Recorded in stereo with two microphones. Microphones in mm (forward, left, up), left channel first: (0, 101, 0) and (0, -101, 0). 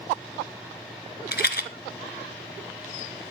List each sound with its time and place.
1.3 s a rattle: 55° left (ahead or behind), 1.4 m